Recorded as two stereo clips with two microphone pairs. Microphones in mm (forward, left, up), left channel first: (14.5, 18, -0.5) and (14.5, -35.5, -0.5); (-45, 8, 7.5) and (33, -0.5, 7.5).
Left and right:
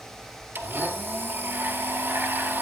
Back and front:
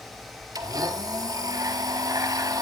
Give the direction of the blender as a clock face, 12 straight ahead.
1 o'clock.